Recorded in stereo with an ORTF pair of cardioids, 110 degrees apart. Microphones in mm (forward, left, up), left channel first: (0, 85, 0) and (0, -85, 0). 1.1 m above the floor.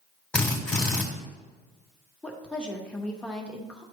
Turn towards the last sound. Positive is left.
turn(degrees=5)